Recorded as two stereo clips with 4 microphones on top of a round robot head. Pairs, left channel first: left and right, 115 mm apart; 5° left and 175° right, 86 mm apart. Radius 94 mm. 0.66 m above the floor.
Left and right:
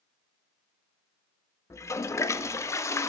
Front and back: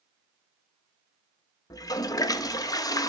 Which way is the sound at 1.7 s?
30° left.